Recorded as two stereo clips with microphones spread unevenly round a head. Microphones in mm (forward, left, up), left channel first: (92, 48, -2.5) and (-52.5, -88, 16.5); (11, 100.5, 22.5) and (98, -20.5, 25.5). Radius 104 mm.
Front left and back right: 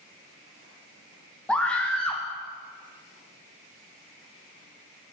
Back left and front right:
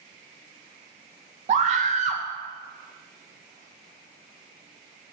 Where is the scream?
35° right, 0.6 m.